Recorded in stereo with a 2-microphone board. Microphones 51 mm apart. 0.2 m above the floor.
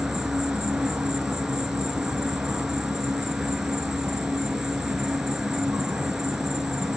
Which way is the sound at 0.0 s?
10° right (ahead or behind).